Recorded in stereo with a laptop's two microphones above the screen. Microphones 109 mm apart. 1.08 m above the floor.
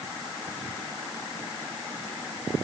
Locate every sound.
Only background noise.